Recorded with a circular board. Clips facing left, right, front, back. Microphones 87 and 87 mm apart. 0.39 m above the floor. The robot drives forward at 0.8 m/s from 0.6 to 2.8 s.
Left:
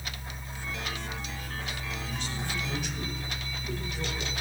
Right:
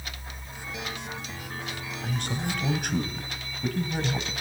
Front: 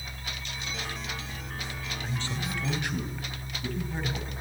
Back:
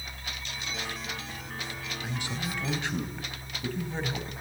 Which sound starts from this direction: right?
A man speaking, at 2.0 s.